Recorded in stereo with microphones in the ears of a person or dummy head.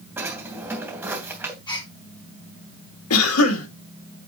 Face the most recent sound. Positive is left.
turn(degrees=80)